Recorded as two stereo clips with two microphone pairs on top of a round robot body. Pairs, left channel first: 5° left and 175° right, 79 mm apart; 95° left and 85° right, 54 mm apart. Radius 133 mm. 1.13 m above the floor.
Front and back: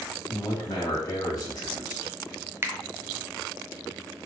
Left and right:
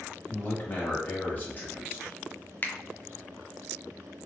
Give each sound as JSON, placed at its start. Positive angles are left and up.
{"t": 0.3, "sound": "a man speaking", "azimuth_deg": 35, "distance_m": 1.8}
{"t": 2.6, "sound": "a finger snap", "azimuth_deg": 135, "distance_m": 0.6}